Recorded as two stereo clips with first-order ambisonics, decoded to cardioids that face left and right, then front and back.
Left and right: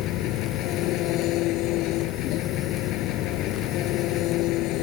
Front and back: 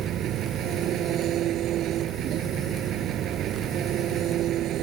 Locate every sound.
0.0 s an engine running: 130° left